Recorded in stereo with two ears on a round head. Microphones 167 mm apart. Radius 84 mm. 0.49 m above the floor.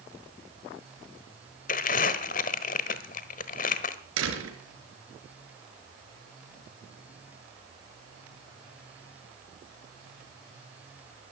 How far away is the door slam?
About 4.5 m.